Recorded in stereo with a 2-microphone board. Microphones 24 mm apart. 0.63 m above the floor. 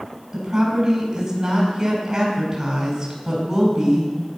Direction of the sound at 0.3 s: 30° right (ahead or behind).